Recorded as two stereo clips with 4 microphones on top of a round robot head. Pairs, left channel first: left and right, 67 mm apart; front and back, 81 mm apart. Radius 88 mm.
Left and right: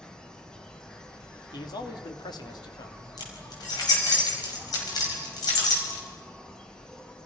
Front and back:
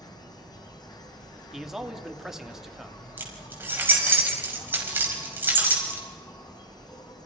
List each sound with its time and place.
0.0 s an insect: 15° left, 2.5 m
1.5 s a man speaking: 95° left, 2 m
3.2 s keys jangling: 115° left, 5.5 m